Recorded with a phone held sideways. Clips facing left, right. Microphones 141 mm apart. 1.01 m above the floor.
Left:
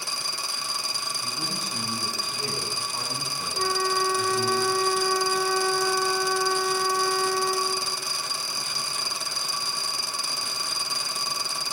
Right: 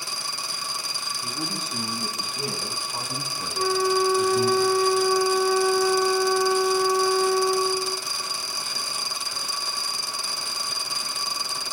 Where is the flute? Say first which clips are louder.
Right 5 dB; 5° right (ahead or behind), 1.2 m.